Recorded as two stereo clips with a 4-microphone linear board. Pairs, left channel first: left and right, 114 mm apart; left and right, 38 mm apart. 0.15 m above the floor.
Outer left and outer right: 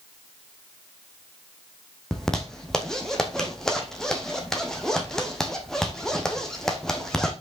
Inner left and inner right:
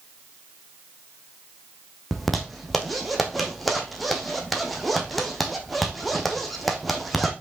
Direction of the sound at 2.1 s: 5° left (ahead or behind).